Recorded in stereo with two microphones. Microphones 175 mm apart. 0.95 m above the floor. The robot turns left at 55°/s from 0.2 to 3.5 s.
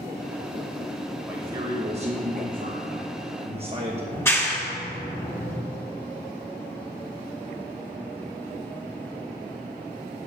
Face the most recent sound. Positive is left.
turn(degrees=15)  # may be behind; listen again after turning